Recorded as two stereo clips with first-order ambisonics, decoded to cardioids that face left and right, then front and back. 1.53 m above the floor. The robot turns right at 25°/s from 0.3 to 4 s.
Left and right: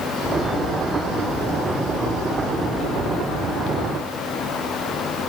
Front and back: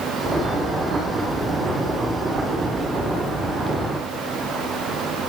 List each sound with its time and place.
Only background noise.